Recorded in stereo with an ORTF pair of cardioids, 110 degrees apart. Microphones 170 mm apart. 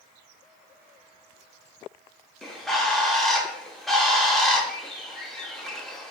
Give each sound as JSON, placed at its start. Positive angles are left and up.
{"t": 2.4, "sound": "a bird", "azimuth_deg": 0, "distance_m": 0.7}